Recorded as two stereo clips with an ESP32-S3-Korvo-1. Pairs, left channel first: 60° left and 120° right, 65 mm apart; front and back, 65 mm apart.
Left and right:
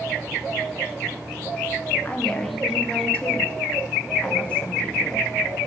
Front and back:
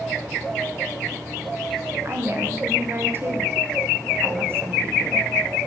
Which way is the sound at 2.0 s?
130° left.